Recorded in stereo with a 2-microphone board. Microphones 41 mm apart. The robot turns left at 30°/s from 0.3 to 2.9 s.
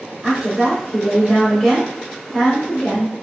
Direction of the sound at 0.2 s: 10° right (ahead or behind).